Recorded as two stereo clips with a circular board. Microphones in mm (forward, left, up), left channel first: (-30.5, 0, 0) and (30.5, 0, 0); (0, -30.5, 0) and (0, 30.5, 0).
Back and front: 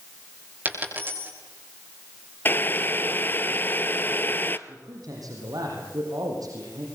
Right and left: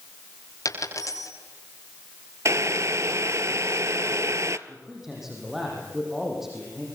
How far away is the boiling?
About 0.9 m.